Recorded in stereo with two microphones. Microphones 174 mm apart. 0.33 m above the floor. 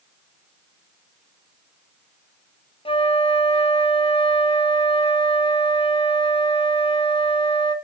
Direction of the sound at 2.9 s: 30° left (ahead or behind).